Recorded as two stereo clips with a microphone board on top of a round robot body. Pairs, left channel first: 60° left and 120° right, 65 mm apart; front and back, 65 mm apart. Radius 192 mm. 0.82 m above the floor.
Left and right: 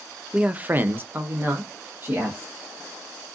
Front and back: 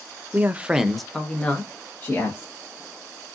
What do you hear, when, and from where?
0.3 s a man speaking: straight behind, 0.6 m; by 2.5 s 60° right, 1.3 m